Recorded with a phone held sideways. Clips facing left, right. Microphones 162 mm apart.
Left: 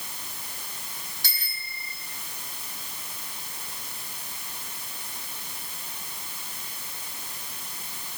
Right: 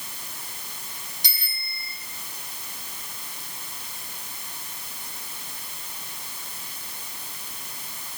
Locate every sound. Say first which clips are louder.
1.2 s a bicycle bell: even; 20° right (ahead or behind), 8 m